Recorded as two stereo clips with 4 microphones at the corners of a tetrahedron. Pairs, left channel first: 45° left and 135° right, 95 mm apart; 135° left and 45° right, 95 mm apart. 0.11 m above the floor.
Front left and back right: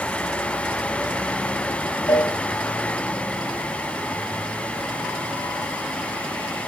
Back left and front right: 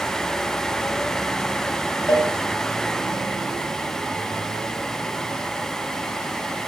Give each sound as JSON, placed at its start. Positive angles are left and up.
{"t": 2.1, "sound": "a cowbell", "azimuth_deg": 80, "distance_m": 8.5}